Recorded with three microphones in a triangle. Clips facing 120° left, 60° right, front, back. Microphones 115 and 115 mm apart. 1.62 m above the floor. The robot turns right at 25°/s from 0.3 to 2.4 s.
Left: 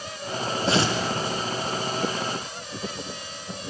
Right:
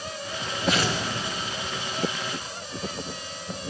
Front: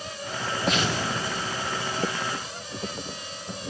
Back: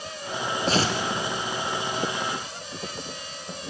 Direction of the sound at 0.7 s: 155° left.